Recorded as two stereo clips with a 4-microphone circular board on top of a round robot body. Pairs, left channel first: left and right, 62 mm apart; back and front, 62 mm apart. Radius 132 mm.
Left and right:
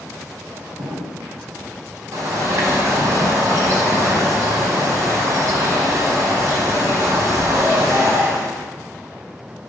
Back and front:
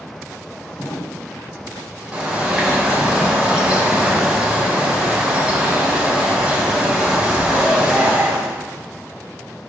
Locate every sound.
0.8 s an explosion: 105° right, 1.0 m
2.1 s a bird: 70° right, 2.5 m